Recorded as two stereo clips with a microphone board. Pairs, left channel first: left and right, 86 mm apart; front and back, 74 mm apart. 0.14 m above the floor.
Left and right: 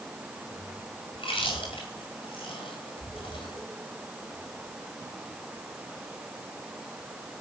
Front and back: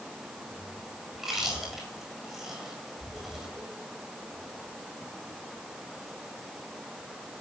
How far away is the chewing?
About 9 m.